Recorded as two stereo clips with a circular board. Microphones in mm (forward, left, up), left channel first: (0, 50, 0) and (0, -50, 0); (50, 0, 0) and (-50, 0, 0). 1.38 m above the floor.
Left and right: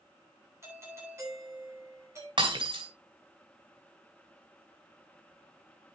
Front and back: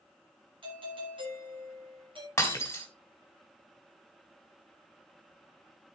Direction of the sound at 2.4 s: 65° right.